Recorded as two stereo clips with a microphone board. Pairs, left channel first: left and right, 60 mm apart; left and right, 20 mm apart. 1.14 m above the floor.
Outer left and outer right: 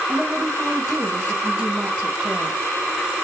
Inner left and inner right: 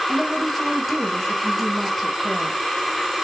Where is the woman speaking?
5° left (ahead or behind), 1.3 m.